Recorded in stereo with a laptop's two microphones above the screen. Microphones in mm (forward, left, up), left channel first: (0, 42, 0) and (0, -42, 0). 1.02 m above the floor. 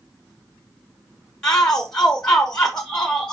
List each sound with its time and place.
1.4 s a shout: 5° left (ahead or behind), 1.0 m